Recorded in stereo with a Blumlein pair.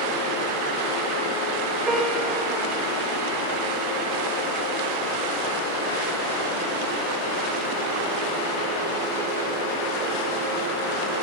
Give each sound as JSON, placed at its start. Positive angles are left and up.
{"t": 1.9, "sound": "a piano", "azimuth_deg": -15, "distance_m": 5.5}